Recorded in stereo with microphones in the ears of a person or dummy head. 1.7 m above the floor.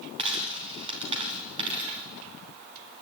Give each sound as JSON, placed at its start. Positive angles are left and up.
{"t": 0.2, "sound": "a dropped coin", "side_deg": -30, "distance_m": 2.5}